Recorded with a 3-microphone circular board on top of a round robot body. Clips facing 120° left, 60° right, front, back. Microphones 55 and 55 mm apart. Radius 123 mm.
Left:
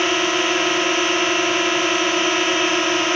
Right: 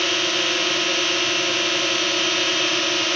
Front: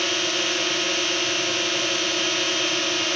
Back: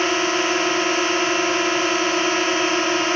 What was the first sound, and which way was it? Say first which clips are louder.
A drone: left 4 dB, back 6 dB; 175° left.